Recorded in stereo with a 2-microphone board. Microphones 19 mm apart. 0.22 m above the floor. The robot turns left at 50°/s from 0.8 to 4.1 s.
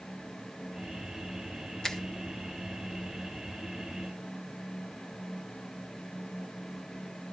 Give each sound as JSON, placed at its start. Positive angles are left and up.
{"t": 1.8, "sound": "a finger snap", "side_deg": 30, "distance_m": 1.1}